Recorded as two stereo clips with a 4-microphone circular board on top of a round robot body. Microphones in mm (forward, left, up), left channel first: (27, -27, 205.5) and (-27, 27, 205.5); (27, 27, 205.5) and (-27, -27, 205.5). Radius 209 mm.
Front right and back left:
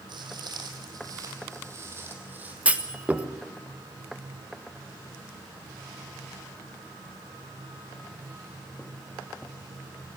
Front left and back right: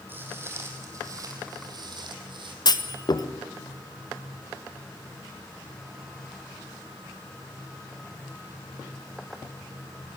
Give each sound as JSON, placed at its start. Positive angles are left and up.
{"t": 0.1, "sound": "footsteps", "azimuth_deg": 160, "distance_m": 3.0}
{"t": 2.6, "sound": "a clunk", "azimuth_deg": 65, "distance_m": 1.8}